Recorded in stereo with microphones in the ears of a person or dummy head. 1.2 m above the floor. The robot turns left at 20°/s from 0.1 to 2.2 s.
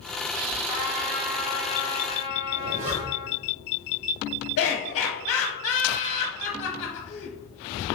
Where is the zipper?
35° right (ahead or behind), 0.5 m.